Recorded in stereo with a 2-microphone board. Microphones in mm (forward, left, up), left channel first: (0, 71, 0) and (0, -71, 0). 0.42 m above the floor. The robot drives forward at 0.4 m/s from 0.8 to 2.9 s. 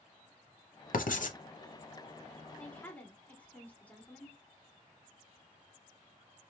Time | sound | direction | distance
0.9 | writing | 75° left (ahead or behind) | 0.6 m
2.6 | a woman speaking | 10° left (ahead or behind) | 1.0 m